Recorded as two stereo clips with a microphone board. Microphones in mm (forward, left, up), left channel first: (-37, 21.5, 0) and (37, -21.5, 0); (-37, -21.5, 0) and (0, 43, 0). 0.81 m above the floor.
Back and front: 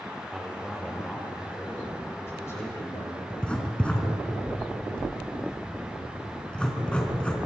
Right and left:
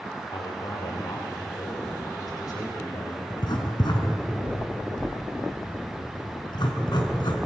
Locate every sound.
0.3 s a man speaking: 110° right, 2.5 m; by 3.2 s 160° right, 4.5 m
3.3 s writing: 130° right, 3.5 m